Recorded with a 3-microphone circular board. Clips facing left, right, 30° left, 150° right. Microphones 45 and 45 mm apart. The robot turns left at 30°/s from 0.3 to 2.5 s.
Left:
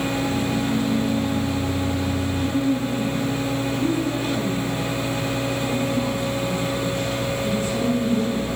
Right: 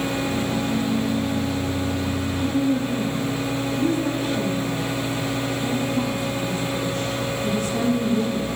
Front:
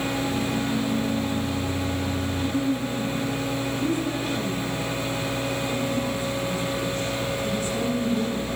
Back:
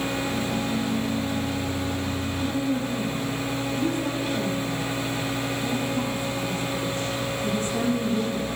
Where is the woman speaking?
120° right, 7 m.